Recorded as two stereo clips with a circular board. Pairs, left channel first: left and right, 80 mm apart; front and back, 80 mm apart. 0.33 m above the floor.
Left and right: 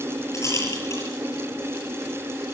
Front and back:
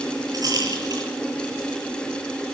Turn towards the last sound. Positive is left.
turn(degrees=145)